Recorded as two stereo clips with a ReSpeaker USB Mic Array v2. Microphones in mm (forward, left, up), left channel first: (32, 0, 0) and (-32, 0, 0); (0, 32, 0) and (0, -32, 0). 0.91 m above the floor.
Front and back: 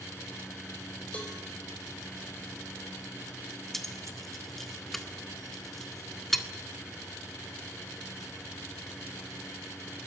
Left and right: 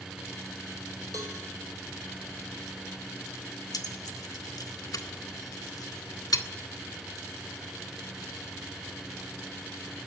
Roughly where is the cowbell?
Right.